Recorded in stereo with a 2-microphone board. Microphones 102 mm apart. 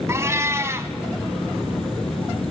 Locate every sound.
0.1 s a cat meowing: 30° right (ahead or behind), 1.0 m